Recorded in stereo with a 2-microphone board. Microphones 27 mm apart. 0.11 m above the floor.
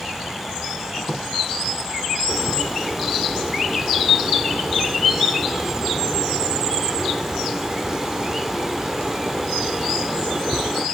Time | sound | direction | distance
1.0 | a squeak | 55° left (ahead or behind) | 4.5 m
2.3 | a bird | 5° right (ahead or behind) | 2.5 m